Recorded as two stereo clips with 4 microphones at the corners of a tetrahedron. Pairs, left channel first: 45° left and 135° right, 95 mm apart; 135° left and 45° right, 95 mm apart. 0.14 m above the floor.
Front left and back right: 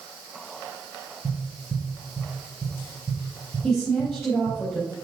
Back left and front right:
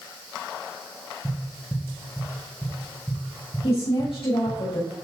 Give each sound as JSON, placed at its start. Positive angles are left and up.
{"t": 1.2, "sound": "tapping", "azimuth_deg": -160, "distance_m": 3.0}
{"t": 3.6, "sound": "a woman speaking", "azimuth_deg": 140, "distance_m": 3.5}